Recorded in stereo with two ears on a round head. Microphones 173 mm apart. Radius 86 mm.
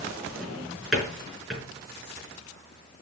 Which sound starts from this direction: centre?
A drawer, at 0.4 s.